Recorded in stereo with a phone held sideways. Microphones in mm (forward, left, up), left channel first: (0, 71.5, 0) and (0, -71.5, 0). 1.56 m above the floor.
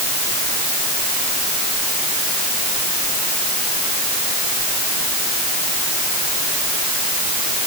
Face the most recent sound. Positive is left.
No sound to turn to.